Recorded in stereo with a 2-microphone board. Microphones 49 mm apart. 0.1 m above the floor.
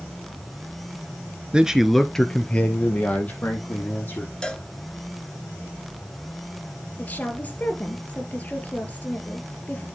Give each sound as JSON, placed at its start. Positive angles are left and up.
{"t": 1.5, "sound": "a man speaking", "side_deg": -20, "distance_m": 1.1}
{"t": 4.4, "sound": "a cowbell", "side_deg": 20, "distance_m": 1.1}
{"t": 7.0, "sound": "a woman speaking", "side_deg": 30, "distance_m": 2.5}